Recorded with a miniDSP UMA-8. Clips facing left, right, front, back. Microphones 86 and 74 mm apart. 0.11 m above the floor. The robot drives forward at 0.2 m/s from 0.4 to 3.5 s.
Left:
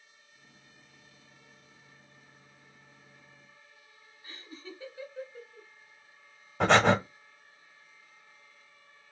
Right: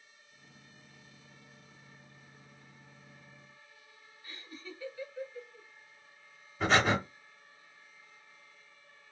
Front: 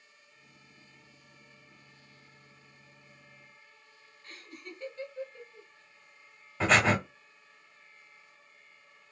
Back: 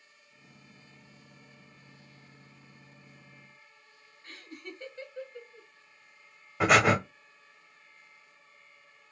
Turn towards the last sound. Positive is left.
turn(degrees=105)